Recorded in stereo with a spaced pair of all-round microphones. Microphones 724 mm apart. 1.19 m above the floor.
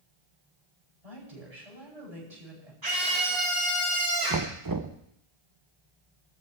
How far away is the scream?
About 1.9 m.